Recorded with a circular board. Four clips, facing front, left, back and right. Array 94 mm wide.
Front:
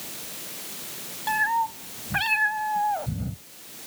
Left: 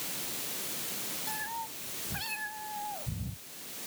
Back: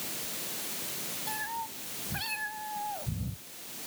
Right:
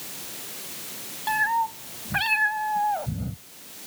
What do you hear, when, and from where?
1.3 s a cat meowing: 50° right